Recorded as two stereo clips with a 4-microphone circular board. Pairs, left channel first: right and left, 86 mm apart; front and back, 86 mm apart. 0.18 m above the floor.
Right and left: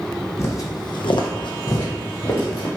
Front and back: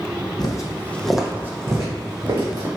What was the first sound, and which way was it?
Footsteps, 35° right.